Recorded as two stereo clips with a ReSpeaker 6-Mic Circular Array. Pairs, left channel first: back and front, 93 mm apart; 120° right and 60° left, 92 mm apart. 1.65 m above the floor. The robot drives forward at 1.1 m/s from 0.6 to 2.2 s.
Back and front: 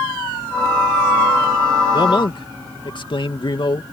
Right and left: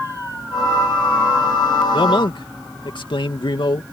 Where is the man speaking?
145° right; by 3.8 s 150° right.